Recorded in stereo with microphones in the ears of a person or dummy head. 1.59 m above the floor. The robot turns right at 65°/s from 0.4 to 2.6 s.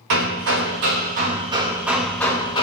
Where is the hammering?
105° right, 1.2 m; by 2.6 s 35° left, 1.2 m.